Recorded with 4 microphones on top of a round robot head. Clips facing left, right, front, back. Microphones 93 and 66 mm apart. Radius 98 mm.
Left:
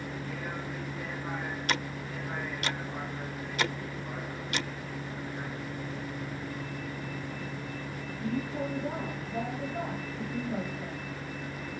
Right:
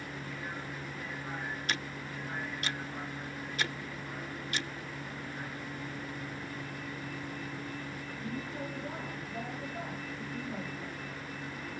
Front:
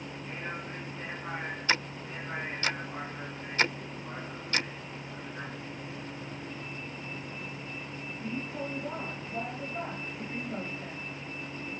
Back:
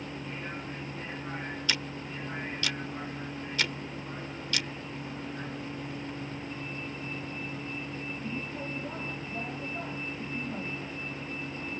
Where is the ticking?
50° left.